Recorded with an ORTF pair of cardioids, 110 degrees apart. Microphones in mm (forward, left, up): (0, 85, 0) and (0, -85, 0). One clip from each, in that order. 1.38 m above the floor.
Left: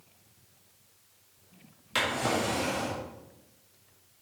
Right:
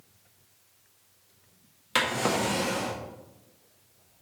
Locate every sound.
1.9 s a drawer: 35° right, 1.4 m